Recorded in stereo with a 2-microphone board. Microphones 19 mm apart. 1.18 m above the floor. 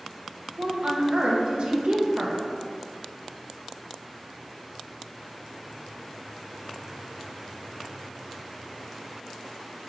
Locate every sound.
0.6 s a woman speaking: 75° right (ahead or behind), 1.3 m